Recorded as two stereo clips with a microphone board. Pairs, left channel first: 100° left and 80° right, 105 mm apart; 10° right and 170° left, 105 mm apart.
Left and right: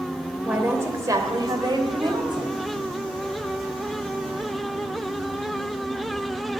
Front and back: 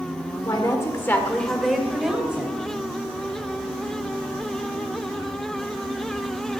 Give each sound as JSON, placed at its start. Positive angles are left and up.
{"t": 0.5, "sound": "a woman speaking", "azimuth_deg": -15, "distance_m": 1.4}